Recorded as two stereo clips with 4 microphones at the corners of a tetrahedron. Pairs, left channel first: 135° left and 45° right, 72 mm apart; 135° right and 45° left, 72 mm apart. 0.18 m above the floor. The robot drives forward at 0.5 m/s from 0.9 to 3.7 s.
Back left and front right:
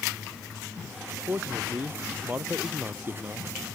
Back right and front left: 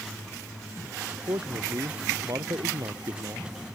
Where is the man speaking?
15° left; by 3.8 s 20° left.